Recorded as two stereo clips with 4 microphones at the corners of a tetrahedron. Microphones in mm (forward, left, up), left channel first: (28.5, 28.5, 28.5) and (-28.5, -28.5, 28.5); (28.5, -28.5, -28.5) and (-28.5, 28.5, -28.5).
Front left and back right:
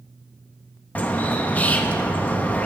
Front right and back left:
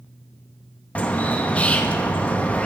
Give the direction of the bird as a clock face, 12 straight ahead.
12 o'clock.